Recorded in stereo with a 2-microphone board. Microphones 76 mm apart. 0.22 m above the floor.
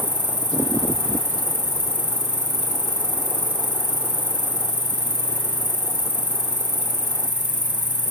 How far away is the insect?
About 4 m.